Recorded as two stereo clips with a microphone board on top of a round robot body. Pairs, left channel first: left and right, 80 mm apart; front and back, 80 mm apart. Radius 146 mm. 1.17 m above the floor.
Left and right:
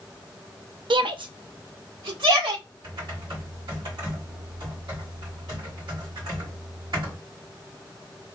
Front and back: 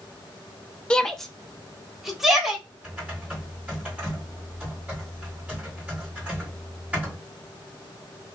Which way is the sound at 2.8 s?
105° right.